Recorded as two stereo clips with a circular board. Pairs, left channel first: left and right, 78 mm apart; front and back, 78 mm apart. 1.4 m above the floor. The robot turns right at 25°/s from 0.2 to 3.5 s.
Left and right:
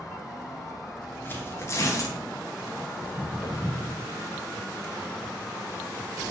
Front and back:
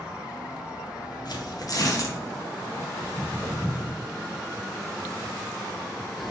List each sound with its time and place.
1.2 s tearing paper: 25° left, 0.7 m; by 2.2 s 50° left, 0.7 m
3.0 s footsteps: 5° left, 1.4 m; by 4.0 s 95° left, 1.8 m